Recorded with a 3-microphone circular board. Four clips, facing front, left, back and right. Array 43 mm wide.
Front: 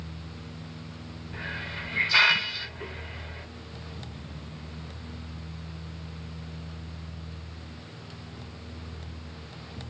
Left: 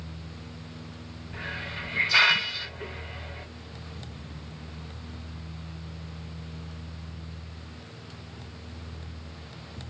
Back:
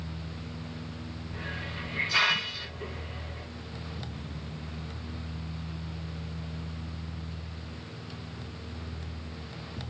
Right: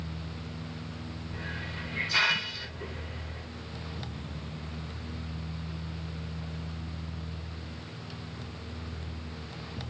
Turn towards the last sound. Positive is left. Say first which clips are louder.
# left 5 dB, front 3 dB
turn(degrees=45)